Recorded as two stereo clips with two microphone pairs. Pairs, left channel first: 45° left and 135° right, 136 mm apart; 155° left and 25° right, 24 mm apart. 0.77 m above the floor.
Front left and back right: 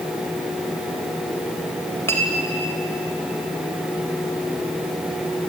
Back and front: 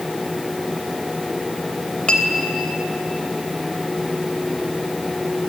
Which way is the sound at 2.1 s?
115° left.